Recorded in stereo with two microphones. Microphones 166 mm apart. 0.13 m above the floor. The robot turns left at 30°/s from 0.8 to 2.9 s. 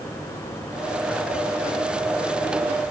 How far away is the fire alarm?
I don't hear a fire alarm.